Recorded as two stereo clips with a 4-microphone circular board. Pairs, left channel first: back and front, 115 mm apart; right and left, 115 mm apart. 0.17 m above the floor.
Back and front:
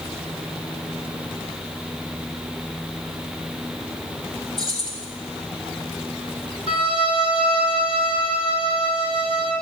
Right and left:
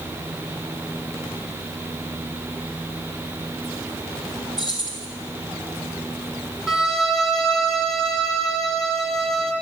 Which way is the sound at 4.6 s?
140° right.